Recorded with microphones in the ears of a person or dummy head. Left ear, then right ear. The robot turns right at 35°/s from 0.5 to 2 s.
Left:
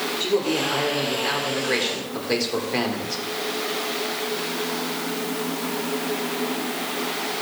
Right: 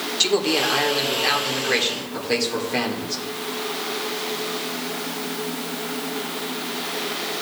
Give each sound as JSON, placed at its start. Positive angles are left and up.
{"t": 0.2, "sound": "a man speaking", "azimuth_deg": -50, "distance_m": 1.6}